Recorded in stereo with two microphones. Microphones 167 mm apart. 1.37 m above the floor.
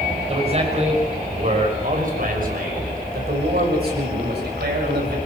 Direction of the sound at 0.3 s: 35° right (ahead or behind).